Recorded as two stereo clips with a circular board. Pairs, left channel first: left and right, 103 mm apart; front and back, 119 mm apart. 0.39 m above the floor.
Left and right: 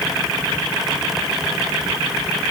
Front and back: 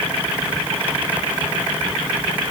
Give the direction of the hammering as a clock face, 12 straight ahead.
No hammering in this recording.